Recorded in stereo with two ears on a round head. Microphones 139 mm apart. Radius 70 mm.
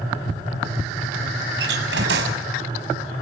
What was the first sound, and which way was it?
A door slam, 80° right.